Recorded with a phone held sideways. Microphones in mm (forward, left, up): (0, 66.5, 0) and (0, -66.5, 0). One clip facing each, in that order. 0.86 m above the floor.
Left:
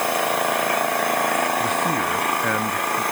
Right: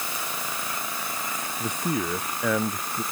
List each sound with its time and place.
0.0 s an engine running: 70° left (ahead or behind)
1.6 s a man speaking: 10° right (ahead or behind)